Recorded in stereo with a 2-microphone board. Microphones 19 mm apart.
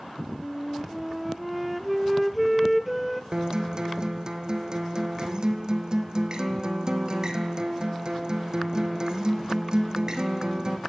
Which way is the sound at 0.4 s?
Centre (ahead or behind).